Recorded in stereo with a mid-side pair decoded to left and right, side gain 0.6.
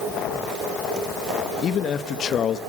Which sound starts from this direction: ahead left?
A man speaking, at 1.6 s.